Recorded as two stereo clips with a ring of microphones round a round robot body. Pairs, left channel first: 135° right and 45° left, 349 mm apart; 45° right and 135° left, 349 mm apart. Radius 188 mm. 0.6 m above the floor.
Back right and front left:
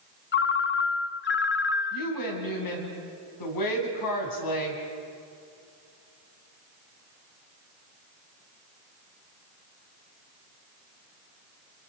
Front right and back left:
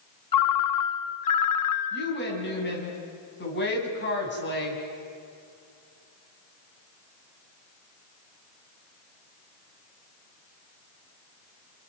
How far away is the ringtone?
About 1.0 m.